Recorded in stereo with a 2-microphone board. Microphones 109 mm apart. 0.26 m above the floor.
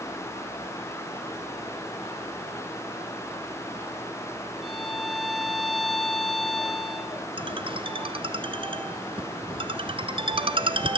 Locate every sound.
4.6 s a violin: centre (ahead or behind), 1.7 m
7.4 s a ringtone: 55° right (ahead or behind), 1.3 m